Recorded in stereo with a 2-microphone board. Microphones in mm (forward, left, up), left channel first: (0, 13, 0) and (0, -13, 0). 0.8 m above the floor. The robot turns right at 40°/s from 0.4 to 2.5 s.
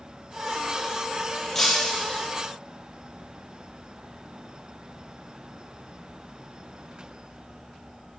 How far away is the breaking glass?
About 4 m.